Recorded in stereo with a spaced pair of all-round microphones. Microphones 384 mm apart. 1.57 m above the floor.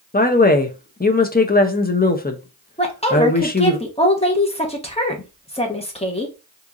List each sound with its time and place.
0.1 s a woman speaking: 25° left (ahead or behind), 0.5 m
2.8 s a woman speaking: 15° left (ahead or behind), 0.9 m